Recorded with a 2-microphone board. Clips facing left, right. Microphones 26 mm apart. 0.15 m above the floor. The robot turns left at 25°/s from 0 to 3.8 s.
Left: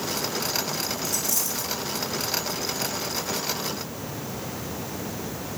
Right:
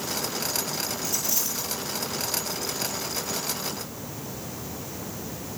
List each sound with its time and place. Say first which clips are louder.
1.0 s a dropped coin: left 1 dB; 10° right (ahead or behind), 3 m; by 1.7 s 30° right (ahead or behind), 3 m